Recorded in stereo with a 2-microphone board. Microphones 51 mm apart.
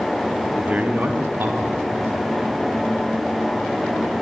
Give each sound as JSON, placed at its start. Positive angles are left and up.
{"t": 0.6, "sound": "a man speaking", "side_deg": -25, "distance_m": 0.8}